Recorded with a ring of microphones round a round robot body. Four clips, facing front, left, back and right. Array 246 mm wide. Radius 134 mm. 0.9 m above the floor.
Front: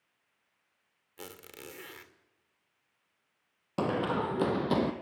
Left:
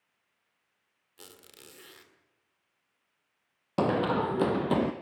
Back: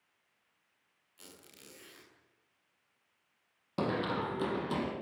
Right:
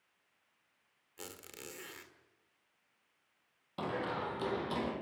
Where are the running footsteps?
85° left, 1.7 m; by 4.9 s 55° left, 2 m.